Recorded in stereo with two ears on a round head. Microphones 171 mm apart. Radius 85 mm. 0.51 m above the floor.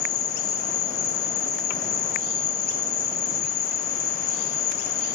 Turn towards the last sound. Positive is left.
turn(degrees=75)  # may be behind; listen again after turning